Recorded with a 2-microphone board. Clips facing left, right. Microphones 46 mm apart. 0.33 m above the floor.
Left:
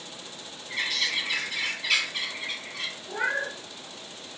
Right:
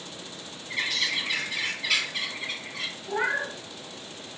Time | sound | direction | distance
0.7 | a bird | 5° right (ahead or behind) | 1.9 m
3.1 | a cat meowing | 35° right (ahead or behind) | 1.0 m